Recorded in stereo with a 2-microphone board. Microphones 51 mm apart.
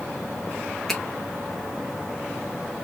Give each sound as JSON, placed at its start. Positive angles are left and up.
{"t": 0.9, "sound": "a finger snap", "side_deg": 5, "distance_m": 1.7}